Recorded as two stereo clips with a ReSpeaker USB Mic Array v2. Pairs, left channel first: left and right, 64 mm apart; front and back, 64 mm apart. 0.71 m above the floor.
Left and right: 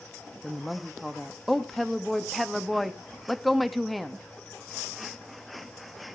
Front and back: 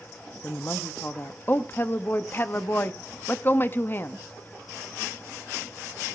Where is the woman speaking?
Straight ahead, 0.9 m.